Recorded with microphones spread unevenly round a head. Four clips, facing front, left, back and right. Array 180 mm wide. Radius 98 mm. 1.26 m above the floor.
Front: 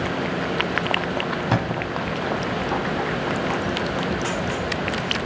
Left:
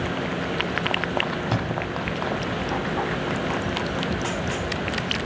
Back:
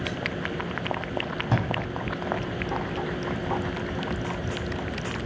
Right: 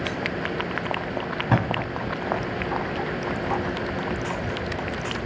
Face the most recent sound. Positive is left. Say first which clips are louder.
# right 2 dB, front 1 dB
turn(degrees=-55)